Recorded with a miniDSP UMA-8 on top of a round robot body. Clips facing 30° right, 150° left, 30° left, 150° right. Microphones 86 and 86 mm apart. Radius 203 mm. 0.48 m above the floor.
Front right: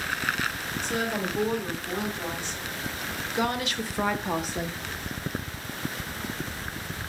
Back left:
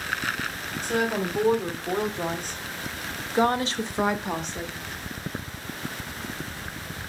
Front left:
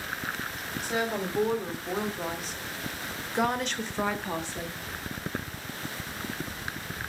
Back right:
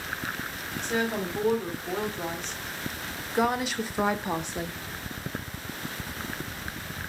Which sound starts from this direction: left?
A woman speaking, at 0.8 s.